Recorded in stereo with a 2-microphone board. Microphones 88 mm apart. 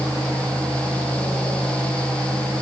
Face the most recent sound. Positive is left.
No sound to turn to.